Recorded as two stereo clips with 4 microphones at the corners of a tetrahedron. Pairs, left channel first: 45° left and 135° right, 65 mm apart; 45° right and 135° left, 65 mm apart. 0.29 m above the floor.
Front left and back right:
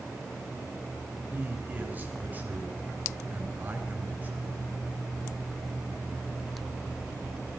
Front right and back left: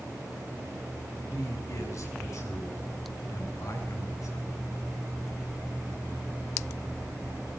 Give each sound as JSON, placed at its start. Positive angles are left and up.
{"t": 1.3, "sound": "a man speaking", "azimuth_deg": -75, "distance_m": 5.0}